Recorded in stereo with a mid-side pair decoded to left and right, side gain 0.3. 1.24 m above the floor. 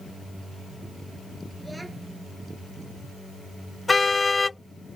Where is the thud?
No thud in this recording.